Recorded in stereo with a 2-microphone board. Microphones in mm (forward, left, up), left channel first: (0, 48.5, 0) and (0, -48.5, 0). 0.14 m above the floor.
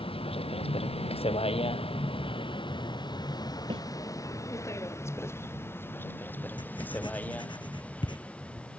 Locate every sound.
0.0 s a vehicle: 70° left (ahead or behind); by 8.8 s 10° left (ahead or behind)
3.7 s a snare drum: 60° right (ahead or behind)
6.6 s writing: 55° left (ahead or behind)